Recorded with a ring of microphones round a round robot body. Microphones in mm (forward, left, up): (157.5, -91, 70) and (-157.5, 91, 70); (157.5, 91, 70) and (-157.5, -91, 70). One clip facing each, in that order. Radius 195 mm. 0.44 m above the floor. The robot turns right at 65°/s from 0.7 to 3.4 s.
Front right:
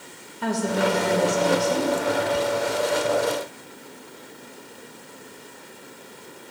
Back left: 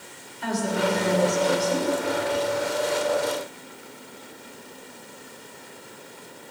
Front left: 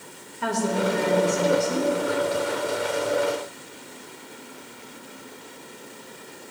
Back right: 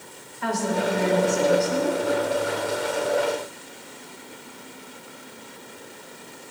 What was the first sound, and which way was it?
A woman speaking, 10° right.